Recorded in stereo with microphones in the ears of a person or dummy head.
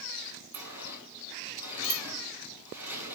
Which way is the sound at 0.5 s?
15° right (ahead or behind).